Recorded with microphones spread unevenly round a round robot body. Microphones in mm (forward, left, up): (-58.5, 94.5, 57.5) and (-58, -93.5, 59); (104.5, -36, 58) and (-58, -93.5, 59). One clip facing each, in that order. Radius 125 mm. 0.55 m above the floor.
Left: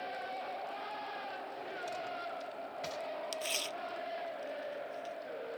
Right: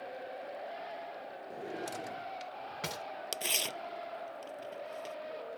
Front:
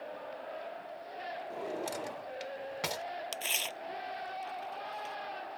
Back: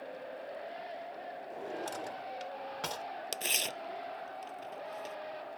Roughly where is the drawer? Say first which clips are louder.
Right 5 dB, front 2 dB; ahead right.